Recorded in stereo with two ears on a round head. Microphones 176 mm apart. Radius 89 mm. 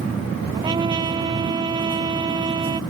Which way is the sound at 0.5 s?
25° right (ahead or behind).